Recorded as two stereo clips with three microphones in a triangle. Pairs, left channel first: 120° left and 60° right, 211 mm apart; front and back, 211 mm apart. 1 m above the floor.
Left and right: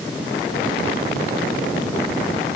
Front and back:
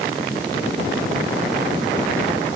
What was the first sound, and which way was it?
Only background noise.